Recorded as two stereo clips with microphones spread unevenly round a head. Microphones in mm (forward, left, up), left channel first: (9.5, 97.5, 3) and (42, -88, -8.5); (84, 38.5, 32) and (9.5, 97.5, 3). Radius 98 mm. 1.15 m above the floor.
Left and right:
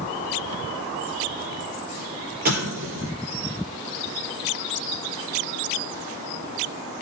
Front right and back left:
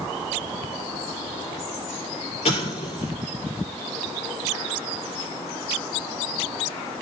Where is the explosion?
35° right, 4.5 m.